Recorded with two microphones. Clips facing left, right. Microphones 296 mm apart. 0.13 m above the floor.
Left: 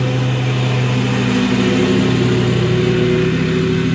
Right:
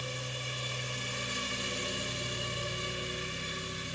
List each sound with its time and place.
0.0 s a lawn mower: 80° left